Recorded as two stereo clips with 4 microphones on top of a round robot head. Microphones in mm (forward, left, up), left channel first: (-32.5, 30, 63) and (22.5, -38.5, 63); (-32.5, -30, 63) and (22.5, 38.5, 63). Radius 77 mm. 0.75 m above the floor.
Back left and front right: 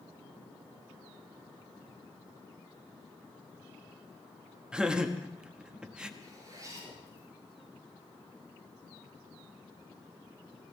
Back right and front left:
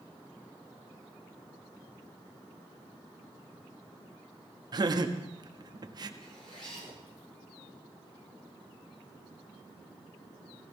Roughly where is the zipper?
Right.